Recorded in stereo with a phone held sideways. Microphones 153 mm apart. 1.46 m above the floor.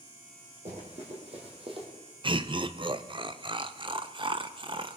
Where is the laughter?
35° right (ahead or behind), 0.7 m.